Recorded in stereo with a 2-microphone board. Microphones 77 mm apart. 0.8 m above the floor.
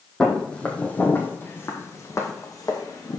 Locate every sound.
0.2 s footsteps: 5° left (ahead or behind), 1.6 m; by 3.2 s 55° left (ahead or behind), 2 m